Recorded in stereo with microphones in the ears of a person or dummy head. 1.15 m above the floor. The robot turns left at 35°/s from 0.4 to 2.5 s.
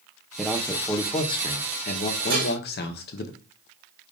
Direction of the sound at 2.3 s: 60° right (ahead or behind).